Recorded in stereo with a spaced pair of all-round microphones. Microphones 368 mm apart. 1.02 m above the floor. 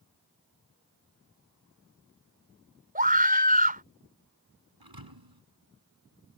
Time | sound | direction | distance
3.0 | a scream | 25° right (ahead or behind) | ?
4.8 | a thud | 80° right | ?